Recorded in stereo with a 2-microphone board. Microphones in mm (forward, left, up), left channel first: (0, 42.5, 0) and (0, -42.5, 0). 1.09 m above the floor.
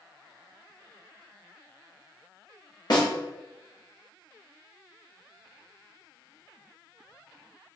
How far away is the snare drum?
About 1.0 m.